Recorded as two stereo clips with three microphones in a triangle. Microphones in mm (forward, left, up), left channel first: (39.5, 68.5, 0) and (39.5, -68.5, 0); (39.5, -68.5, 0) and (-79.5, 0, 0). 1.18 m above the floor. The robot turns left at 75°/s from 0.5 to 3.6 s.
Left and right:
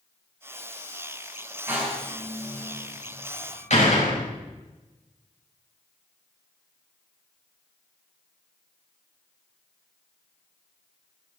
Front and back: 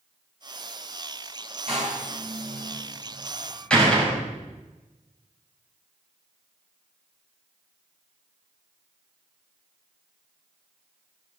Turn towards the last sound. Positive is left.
turn(degrees=55)